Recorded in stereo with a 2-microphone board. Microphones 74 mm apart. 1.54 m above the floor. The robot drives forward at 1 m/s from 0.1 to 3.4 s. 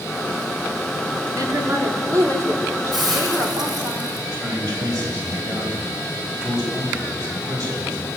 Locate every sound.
1.4 s a woman speaking: 60° right (ahead or behind), 4.5 m; by 3.9 s 40° right (ahead or behind), 6 m
2.9 s a hiss: 80° right, 6 m; by 4.2 s 75° right (ahead or behind), 6 m
4.3 s a man speaking: 55° right (ahead or behind), 9.5 m